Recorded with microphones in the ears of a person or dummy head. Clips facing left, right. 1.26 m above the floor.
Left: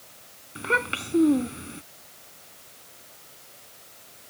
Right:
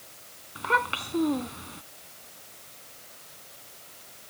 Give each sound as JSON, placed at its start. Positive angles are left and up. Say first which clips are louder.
{"t": 0.6, "sound": "a child speaking", "louder": "left 1 dB", "side_deg": 25}